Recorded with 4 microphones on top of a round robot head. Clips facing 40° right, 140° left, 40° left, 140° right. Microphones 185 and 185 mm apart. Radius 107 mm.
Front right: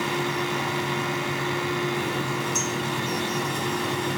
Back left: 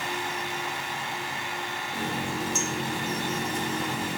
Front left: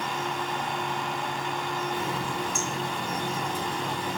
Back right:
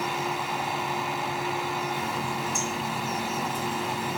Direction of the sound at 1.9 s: 60° left.